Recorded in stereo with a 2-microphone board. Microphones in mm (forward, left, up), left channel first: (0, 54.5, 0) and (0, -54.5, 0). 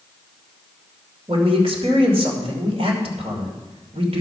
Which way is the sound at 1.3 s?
65° right (ahead or behind).